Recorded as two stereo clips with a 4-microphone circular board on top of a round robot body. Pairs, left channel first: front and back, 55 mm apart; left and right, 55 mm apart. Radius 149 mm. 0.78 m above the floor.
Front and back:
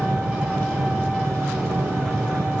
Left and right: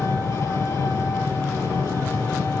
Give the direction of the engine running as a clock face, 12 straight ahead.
8 o'clock.